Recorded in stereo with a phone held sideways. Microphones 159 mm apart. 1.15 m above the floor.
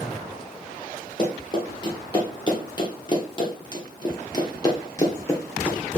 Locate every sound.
1.2 s running footsteps: 25° left (ahead or behind), 2 m; by 6.0 s 15° left (ahead or behind), 1.4 m